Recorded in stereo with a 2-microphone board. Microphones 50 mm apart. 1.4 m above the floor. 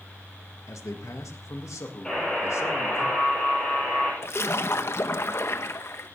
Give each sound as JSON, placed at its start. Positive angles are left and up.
{"t": 0.7, "sound": "a man speaking", "side_deg": 80, "distance_m": 1.5}
{"t": 2.0, "sound": "a buzzer", "side_deg": 15, "distance_m": 8.5}
{"t": 4.2, "sound": "a splash", "side_deg": 55, "distance_m": 0.8}